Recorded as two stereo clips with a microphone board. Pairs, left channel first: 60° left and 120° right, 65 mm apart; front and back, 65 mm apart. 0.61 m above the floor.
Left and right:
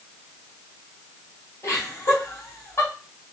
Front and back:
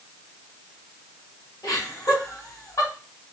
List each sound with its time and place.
1.6 s laughter: 20° left, 2 m